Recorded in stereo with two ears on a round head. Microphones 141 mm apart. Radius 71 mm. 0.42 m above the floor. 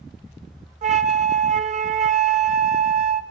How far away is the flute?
About 0.8 m.